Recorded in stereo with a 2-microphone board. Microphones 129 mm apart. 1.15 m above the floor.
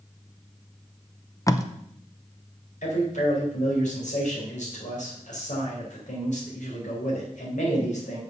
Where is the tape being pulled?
25° left (ahead or behind), 0.6 m.